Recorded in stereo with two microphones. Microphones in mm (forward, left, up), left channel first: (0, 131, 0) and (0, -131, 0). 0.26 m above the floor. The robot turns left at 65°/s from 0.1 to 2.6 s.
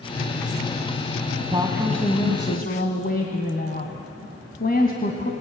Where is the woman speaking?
155° right, 1.7 m; by 5.3 s 135° left, 1.7 m.